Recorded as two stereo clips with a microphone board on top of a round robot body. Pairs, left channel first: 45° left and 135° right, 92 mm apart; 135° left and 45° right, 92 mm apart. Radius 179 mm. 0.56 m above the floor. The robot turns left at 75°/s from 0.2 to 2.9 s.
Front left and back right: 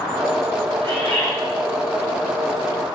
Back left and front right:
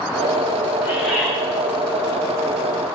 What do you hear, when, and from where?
0.8 s a bird: 105° right, 5 m; by 1.3 s 140° right, 5 m